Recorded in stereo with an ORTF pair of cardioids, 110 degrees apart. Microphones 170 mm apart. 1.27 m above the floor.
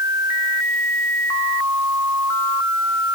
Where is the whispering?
I don't hear whispering.